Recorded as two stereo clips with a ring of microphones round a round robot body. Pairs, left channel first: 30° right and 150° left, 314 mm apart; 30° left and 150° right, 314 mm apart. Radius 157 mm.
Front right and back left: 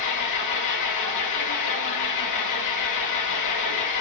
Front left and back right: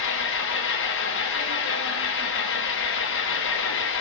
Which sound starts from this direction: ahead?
An engine running, at 0.0 s.